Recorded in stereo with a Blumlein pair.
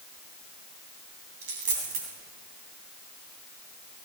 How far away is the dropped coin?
About 3 m.